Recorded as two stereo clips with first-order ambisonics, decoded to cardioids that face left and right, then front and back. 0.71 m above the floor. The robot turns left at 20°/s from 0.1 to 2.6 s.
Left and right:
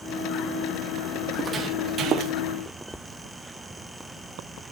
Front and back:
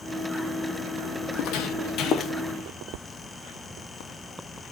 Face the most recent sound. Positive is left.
turn(degrees=-60)